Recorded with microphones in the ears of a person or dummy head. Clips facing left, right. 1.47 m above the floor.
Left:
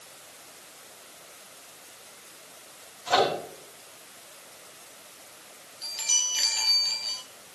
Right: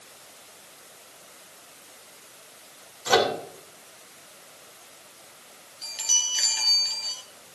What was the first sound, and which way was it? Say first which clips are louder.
A microwave: right 2 dB; 70° right (ahead or behind).